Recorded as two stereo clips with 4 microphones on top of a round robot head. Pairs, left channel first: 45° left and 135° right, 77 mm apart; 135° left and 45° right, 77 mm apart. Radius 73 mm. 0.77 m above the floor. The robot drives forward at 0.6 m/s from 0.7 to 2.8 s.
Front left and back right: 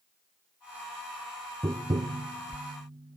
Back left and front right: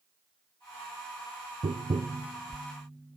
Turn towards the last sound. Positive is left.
turn(degrees=-135)